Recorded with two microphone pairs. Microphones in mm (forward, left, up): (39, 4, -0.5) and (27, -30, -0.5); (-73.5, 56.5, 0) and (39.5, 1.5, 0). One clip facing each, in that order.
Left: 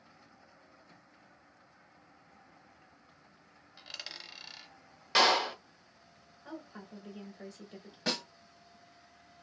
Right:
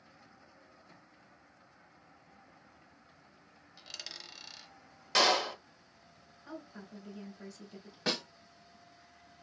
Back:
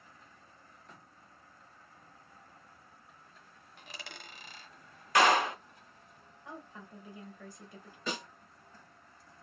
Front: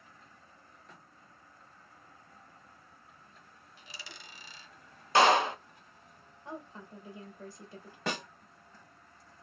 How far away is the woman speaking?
About 1.8 m.